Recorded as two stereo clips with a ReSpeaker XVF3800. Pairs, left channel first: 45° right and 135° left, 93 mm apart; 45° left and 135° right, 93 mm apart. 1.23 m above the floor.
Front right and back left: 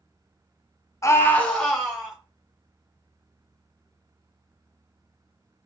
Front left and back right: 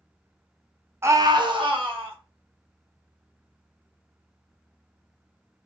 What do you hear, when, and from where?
1.0 s a scream: 85° right, 0.5 m; by 2.2 s 135° right, 1.3 m